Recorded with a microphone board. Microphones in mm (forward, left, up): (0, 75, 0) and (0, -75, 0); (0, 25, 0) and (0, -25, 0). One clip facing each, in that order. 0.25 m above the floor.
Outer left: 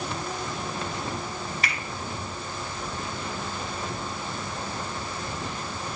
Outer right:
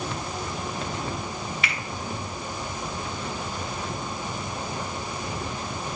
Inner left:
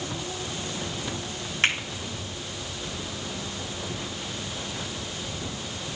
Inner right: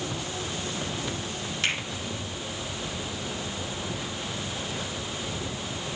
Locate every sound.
1.6 s a finger snap: 40° left (ahead or behind), 2 m